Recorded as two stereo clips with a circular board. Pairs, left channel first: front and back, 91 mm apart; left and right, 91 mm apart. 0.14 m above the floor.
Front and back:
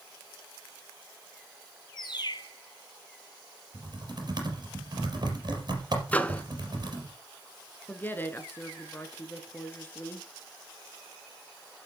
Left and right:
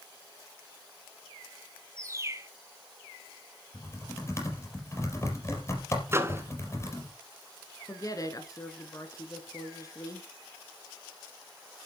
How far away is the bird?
About 1.1 m.